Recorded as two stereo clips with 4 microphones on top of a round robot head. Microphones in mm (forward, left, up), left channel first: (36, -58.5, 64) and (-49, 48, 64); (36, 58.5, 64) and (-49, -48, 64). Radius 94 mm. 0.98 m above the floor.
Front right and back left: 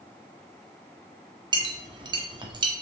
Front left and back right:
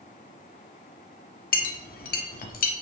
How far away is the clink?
About 1.5 m.